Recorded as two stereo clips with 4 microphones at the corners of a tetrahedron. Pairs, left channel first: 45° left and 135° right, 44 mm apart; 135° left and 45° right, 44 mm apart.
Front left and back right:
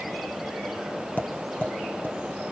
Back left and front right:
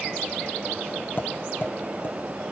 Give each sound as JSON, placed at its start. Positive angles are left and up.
{"t": 1.2, "sound": "tapping", "azimuth_deg": 95, "distance_m": 1.8}